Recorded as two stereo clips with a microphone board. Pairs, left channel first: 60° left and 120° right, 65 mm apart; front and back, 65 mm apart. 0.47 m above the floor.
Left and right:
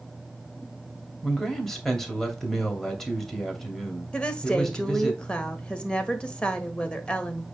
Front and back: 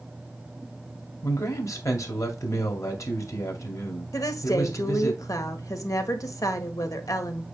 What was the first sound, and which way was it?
A man speaking, 25° right.